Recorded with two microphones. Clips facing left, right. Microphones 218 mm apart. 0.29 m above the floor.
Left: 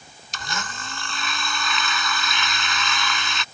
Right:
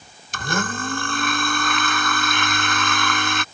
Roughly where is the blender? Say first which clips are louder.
Right 10 dB; right.